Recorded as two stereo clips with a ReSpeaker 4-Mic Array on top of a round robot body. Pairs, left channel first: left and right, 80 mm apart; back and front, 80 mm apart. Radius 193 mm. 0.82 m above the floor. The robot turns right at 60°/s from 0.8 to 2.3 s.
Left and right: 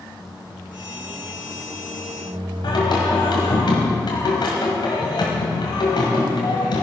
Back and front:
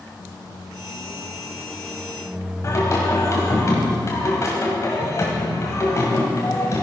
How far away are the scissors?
No scissors in this recording.